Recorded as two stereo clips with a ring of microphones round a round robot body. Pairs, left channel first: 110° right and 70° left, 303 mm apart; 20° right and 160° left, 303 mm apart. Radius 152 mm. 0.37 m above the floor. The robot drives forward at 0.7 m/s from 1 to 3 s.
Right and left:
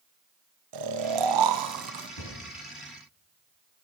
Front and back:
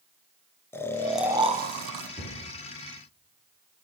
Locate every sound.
0.7 s snoring: 60° left, 0.7 m; by 2.1 s 125° left, 0.8 m
2.2 s a cupboard door: 120° right, 4.5 m